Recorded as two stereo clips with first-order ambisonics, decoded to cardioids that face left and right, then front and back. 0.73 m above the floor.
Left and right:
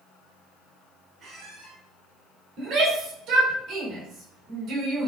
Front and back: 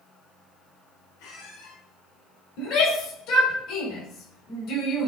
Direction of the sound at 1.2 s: 20° right.